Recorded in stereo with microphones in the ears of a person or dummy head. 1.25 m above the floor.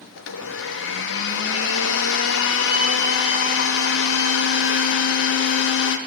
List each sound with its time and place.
0.2 s a blender: 75° left (ahead or behind), 1.0 m